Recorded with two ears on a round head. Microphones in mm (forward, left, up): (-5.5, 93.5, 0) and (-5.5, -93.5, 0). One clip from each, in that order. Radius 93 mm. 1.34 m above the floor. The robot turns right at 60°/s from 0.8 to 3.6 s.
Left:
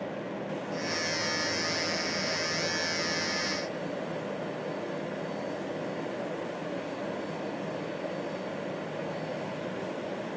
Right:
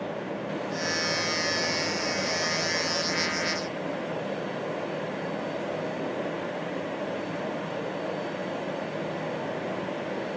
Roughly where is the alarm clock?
No alarm clock in this recording.